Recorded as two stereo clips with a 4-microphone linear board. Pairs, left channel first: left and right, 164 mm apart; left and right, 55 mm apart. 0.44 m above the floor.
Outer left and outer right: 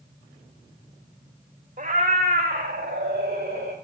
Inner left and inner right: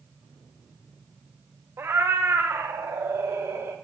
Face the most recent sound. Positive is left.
turn(degrees=-75)  # may be behind; listen again after turning